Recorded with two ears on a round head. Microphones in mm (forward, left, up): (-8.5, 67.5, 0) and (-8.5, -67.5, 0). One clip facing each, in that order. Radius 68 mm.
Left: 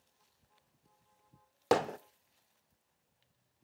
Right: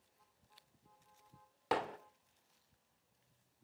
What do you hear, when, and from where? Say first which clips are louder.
1.7 s hammering: left 8 dB; 50° left (ahead or behind), 0.7 m